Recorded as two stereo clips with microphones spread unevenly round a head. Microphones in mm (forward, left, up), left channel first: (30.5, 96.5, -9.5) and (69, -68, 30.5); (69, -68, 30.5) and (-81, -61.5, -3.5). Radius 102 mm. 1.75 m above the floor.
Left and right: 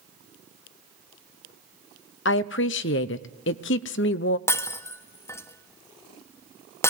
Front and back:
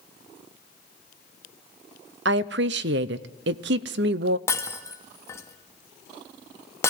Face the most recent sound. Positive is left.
turn(degrees=20)